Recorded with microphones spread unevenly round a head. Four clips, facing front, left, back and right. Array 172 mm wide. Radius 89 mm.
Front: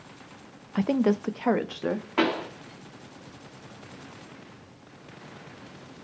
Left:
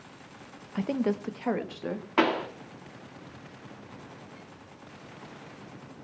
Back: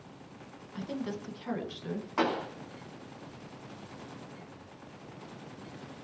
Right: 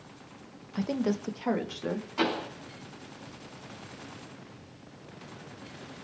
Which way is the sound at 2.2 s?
55° left.